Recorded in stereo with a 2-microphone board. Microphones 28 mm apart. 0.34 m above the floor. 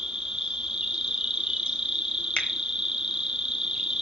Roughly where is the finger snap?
Left.